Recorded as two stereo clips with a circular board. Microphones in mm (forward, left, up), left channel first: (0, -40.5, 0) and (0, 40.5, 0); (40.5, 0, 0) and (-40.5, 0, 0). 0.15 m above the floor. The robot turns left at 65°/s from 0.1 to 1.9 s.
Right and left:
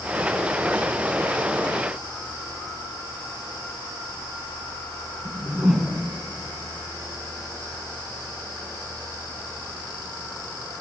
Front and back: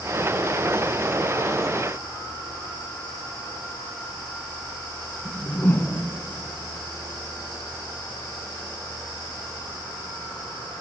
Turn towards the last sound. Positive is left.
turn(degrees=15)